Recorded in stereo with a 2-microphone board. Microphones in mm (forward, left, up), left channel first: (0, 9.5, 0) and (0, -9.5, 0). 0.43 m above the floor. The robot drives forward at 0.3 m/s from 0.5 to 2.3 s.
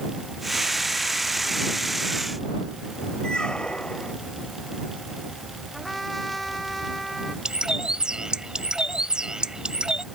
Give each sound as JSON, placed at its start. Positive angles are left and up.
{"t": 3.2, "sound": "a squeak", "side_deg": 50}
{"t": 5.7, "sound": "a trumpet", "side_deg": 10}
{"t": 7.5, "sound": "a bird", "side_deg": -45}